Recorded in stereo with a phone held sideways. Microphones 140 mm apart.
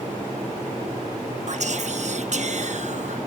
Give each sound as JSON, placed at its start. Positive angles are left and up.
{"t": 1.5, "sound": "whispering", "side_deg": -55, "distance_m": 1.1}